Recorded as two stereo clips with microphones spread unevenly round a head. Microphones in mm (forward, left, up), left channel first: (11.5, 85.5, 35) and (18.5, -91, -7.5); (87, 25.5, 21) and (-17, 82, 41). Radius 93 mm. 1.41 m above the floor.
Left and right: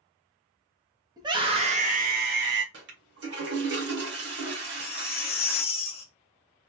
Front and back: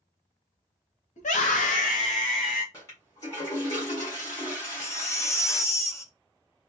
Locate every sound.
1.2 s a scream: 15° right, 1.4 m; by 2.6 s 65° right, 1.2 m
2.7 s a toilet flushing: 105° right, 1.4 m
4.6 s a baby crying: 40° left, 0.8 m